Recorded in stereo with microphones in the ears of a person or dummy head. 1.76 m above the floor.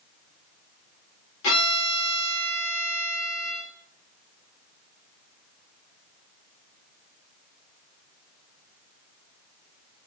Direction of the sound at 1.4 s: 70° left (ahead or behind).